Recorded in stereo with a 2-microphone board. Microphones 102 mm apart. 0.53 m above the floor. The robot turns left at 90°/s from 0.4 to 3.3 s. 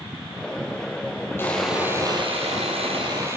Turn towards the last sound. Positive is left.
turn(degrees=-150)